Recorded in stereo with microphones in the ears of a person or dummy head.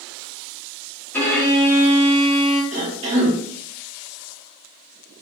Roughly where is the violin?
Centre.